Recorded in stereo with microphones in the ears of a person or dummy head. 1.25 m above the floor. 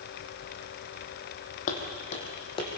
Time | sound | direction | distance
1.7 | footsteps | 50° left (ahead or behind) | 3 m